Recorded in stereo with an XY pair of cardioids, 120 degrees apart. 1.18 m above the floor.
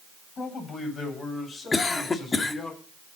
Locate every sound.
0.4 s a man speaking: 40° left, 8.5 m; by 2.7 s 30° left, 9.5 m
1.7 s a cough: 25° left, 2.5 m